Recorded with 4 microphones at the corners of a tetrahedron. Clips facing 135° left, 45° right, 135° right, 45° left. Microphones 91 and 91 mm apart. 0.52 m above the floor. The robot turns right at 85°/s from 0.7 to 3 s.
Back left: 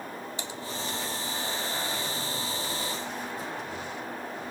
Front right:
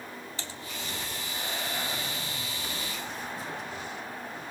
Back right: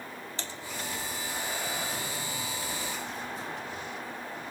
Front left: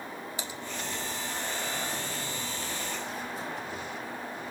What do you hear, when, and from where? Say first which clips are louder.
0.4 s typing on a keyboard: back left 4 dB, front left 2 dB; 100° left, 1.4 m